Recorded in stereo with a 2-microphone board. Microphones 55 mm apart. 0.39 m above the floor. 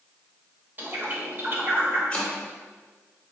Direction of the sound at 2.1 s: 20° left (ahead or behind).